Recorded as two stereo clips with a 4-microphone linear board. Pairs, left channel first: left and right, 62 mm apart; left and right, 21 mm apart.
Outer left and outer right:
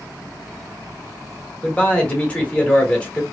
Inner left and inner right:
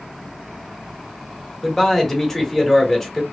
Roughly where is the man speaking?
Centre.